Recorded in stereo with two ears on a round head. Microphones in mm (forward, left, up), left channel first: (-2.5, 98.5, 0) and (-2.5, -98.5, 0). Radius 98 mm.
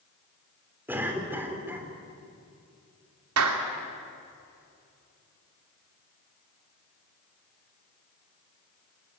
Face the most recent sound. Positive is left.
turn(degrees=-75)  # may be behind; listen again after turning